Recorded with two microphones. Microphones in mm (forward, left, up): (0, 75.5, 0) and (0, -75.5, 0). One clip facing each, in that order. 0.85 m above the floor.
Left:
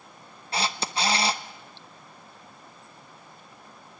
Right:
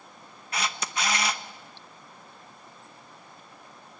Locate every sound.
0.5 s a camera shutter: 30° left (ahead or behind), 0.9 m